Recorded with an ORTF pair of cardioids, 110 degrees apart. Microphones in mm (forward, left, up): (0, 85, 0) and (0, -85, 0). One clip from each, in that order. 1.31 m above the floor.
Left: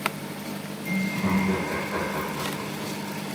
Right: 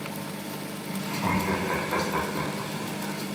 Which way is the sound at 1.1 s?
45° right.